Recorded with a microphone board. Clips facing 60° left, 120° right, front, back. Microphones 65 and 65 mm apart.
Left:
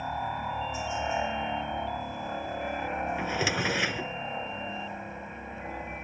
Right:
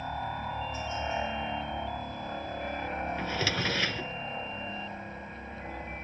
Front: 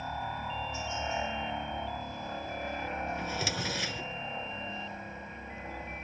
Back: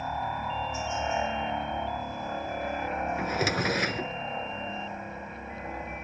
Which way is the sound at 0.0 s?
130° left.